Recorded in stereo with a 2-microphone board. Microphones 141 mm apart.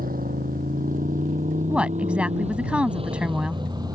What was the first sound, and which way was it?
A motorcycle, 75° right (ahead or behind).